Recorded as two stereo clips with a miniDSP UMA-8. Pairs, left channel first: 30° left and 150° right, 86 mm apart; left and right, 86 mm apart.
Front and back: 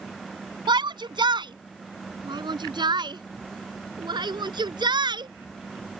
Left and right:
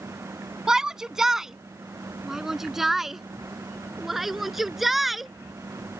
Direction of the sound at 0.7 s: 175° right.